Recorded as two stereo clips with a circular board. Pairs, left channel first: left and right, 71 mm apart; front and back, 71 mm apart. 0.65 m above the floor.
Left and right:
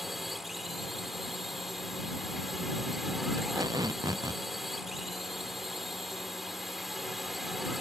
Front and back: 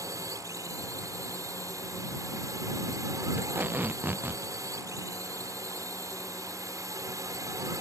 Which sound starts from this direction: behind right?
Tape being pulled, at 3.4 s.